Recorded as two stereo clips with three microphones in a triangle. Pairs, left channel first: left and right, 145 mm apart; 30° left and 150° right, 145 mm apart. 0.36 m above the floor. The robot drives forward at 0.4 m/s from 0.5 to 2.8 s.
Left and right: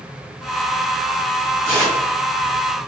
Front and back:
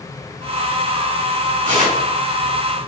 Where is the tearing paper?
160° right, 1.7 m.